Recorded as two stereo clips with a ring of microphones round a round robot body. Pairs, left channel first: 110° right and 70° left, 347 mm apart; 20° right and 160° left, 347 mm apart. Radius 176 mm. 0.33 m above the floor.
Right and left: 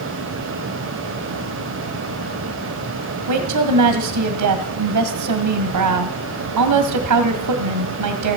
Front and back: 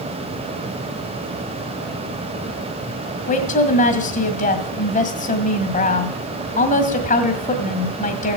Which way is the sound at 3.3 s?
40° left.